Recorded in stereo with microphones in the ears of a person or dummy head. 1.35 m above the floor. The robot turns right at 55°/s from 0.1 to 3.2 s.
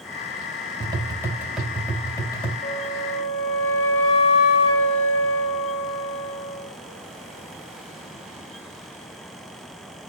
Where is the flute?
80° left, 4 m; by 6.7 s 110° left, 4 m.